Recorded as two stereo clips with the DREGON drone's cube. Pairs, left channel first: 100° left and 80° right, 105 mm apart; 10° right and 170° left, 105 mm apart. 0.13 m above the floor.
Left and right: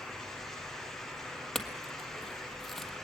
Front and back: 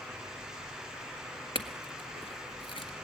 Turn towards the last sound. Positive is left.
turn(degrees=15)